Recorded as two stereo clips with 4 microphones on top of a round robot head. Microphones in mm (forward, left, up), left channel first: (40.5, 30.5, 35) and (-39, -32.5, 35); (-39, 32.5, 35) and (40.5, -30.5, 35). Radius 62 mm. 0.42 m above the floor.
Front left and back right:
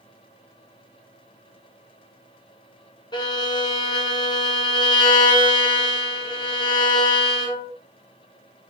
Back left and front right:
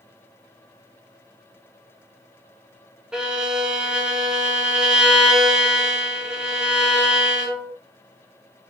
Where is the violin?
45° left, 1.8 m.